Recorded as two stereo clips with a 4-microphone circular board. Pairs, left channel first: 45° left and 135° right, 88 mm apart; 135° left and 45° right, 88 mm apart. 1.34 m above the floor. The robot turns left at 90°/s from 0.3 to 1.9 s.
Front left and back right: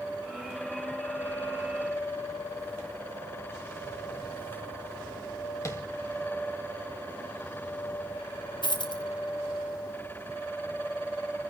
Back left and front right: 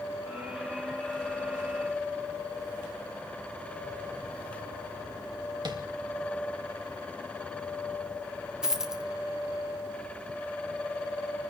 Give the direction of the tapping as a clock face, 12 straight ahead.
12 o'clock.